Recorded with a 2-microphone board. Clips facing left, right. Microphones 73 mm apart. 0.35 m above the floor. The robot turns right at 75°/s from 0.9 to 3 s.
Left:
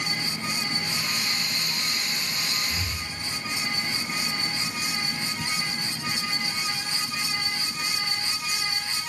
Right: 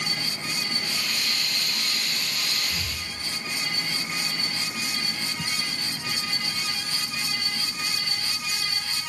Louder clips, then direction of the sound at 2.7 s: Left 1 dB; 20° right (ahead or behind).